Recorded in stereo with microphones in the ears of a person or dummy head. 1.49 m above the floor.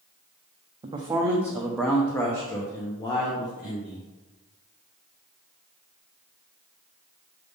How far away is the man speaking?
About 0.7 m.